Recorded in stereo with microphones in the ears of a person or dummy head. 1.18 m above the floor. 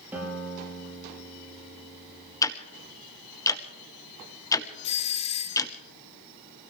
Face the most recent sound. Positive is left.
turn(degrees=30)  # may be behind; listen again after turning